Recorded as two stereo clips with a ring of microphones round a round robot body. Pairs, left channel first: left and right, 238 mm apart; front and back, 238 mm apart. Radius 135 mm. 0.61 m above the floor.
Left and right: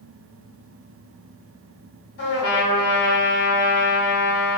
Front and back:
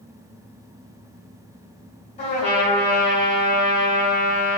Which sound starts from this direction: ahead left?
A trumpet, at 2.2 s.